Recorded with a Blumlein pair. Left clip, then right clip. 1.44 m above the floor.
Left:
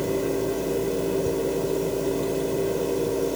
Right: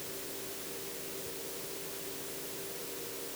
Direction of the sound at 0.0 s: 50° left.